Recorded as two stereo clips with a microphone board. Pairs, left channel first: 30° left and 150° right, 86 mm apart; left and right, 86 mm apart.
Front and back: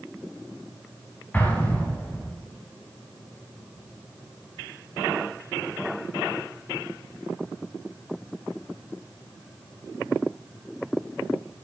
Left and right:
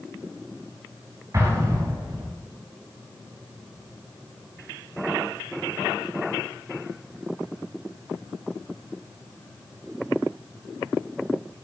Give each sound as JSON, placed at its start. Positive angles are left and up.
{"t": 1.3, "sound": "an explosion", "azimuth_deg": -40, "distance_m": 7.5}